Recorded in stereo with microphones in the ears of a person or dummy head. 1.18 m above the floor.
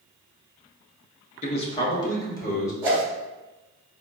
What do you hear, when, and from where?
1.4 s a man speaking: 35° left (ahead or behind), 0.9 m; by 2.7 s 15° left (ahead or behind), 2 m
2.8 s a whoosh: 15° right (ahead or behind), 1.3 m